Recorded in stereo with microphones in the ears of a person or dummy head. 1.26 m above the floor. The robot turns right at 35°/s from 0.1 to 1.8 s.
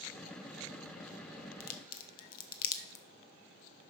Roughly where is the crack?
Left.